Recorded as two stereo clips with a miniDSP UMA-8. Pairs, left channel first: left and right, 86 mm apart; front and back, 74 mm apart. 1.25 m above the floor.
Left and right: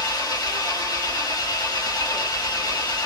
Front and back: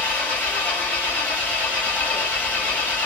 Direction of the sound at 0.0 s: 60° left.